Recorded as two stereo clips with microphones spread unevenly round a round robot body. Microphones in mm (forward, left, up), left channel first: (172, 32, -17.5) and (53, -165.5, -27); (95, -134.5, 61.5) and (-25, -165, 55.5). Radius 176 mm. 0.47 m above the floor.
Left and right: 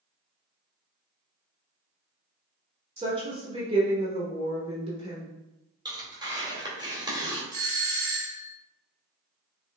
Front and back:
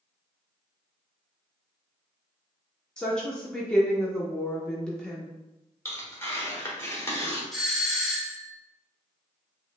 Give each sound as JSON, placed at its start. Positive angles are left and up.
{"t": 3.0, "sound": "a woman speaking", "azimuth_deg": -70, "distance_m": 0.9}
{"t": 5.8, "sound": "tearing paper", "azimuth_deg": -55, "distance_m": 1.7}
{"t": 7.5, "sound": "a doorbell", "azimuth_deg": -80, "distance_m": 1.4}